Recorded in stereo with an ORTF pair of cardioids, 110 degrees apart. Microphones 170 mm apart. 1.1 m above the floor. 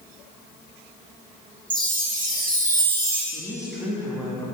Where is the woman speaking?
5° right, 1.7 m.